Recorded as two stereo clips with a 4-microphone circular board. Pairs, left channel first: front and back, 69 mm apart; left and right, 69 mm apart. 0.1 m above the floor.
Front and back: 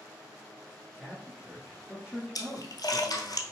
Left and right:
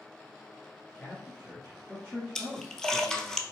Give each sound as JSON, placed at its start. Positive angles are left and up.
{"t": 0.9, "sound": "a man speaking", "azimuth_deg": 130, "distance_m": 1.5}
{"t": 2.4, "sound": "a splash", "azimuth_deg": 10, "distance_m": 0.6}